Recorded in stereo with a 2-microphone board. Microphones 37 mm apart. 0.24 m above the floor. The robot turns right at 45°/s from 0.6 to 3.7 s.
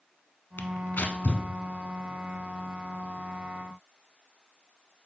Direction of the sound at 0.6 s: 70° left (ahead or behind).